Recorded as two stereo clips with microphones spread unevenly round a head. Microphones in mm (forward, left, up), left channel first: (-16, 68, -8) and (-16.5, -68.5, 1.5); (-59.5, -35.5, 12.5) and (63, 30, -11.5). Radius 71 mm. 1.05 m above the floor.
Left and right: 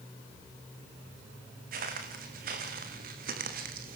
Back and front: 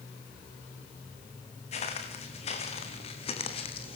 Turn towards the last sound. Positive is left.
turn(degrees=-105)